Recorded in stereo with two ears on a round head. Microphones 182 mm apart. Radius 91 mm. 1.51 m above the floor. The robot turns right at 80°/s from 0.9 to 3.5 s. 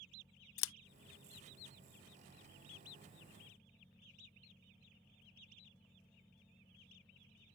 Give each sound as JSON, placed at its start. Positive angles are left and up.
{"t": 0.6, "sound": "scissors", "side_deg": 70}